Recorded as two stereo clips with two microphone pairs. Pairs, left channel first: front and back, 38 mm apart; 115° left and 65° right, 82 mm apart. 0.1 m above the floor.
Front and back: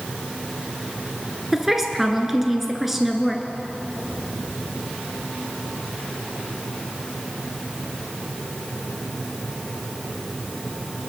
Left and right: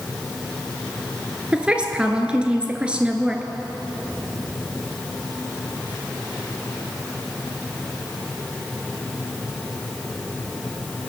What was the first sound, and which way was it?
A woman speaking, 105° right.